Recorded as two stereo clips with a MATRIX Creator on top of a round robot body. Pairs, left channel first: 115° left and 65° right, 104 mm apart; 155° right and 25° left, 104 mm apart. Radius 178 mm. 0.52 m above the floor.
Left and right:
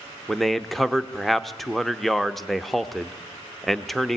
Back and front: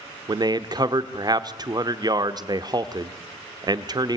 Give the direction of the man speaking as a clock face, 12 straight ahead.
11 o'clock.